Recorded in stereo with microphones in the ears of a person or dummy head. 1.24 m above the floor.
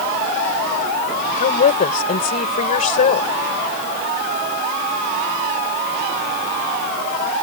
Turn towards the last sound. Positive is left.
turn(degrees=45)  # may be behind; listen again after turning